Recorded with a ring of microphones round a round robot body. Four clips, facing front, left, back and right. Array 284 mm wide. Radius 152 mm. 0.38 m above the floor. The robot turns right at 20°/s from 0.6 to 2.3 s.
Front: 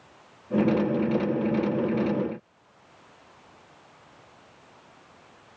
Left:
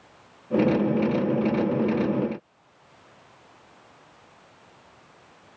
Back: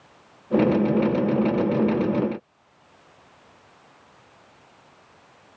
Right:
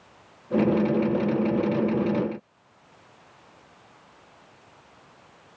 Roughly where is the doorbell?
I don't hear a doorbell.